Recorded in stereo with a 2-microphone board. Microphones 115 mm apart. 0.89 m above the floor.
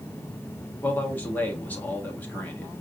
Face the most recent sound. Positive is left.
turn(degrees=15)  # may be behind; listen again after turning